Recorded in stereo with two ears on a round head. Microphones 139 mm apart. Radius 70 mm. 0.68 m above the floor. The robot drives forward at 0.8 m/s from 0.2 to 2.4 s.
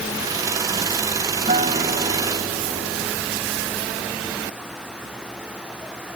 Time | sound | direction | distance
1.5 | a guitar | 45° right (ahead or behind) | ?